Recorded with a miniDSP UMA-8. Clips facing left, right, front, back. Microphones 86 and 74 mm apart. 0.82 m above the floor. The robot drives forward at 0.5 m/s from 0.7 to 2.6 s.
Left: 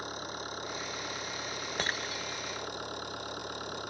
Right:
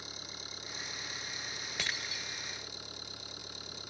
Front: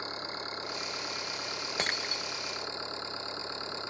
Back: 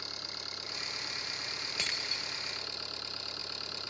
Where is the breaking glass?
40° left; by 2.2 s 45° left.